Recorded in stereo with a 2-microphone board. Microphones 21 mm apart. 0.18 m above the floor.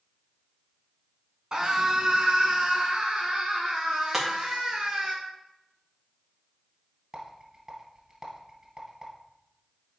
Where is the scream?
40° right (ahead or behind), 1.9 m; by 5.1 s 55° right (ahead or behind), 3.5 m.